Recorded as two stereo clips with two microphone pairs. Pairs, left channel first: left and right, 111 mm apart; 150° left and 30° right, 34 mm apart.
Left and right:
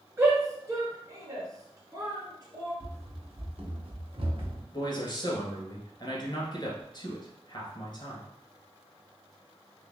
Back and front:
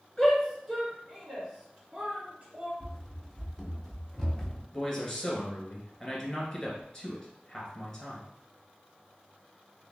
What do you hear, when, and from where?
0.2 s a shout: 135° right, 1.9 m; by 2.7 s 65° right, 2 m
2.8 s running footsteps: 110° right, 0.8 m; by 4.6 s 125° right, 1.7 m
4.7 s a man speaking: 80° left, 1.5 m